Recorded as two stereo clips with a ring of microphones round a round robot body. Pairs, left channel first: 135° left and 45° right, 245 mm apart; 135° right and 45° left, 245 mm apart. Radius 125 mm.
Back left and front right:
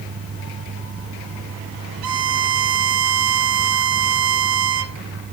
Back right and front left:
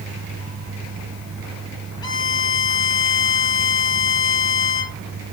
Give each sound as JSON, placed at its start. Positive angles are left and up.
{"t": 2.0, "sound": "a violin", "azimuth_deg": -60, "distance_m": 1.3}